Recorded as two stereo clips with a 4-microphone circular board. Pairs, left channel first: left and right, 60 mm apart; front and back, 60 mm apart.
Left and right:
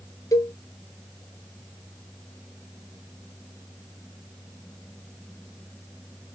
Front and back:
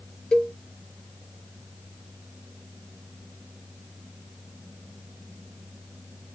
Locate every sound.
0.3 s a cowbell: 75° left, 0.7 m